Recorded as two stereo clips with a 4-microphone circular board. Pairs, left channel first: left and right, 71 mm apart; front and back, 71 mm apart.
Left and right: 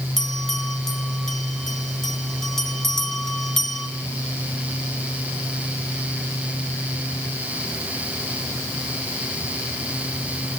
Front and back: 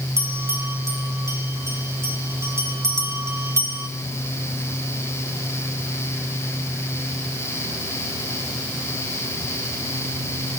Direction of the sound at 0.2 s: 175° left.